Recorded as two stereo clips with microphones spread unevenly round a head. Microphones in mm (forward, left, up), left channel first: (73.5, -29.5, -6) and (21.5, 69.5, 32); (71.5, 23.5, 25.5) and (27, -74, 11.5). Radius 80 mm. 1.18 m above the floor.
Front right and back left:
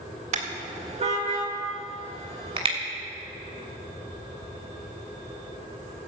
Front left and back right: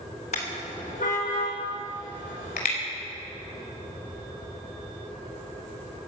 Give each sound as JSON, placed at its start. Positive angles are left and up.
{"t": 0.3, "sound": "a car horn", "azimuth_deg": 115, "distance_m": 2.0}